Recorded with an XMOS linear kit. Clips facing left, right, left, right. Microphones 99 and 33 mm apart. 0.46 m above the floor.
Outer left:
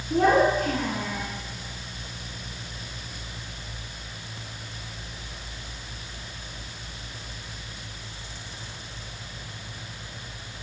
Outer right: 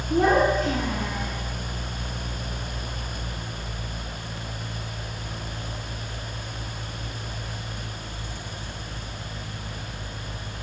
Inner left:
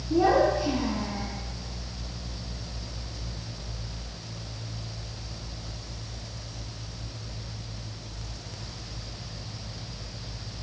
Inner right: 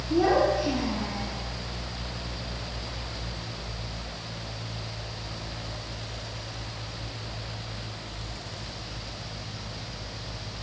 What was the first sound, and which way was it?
A child speaking, 10° left (ahead or behind).